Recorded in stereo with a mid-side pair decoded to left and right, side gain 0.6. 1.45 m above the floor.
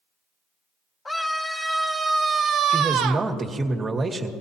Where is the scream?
15° left, 1.3 m; by 3.3 s 80° right, 1.1 m.